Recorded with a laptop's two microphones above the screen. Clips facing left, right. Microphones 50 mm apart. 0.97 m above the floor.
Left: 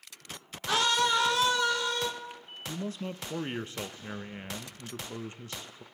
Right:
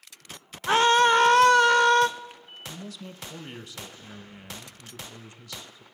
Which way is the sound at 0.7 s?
30° right (ahead or behind).